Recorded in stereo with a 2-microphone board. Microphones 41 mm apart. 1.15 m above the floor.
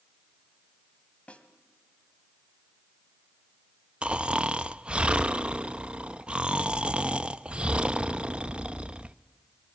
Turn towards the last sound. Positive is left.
turn(degrees=-25)  # may be behind; listen again after turning